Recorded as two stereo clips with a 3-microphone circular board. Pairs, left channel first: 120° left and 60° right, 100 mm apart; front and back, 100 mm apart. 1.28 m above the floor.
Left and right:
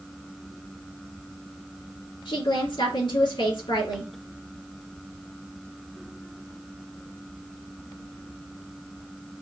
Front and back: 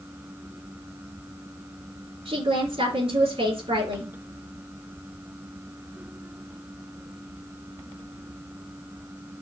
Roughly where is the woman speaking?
Behind left.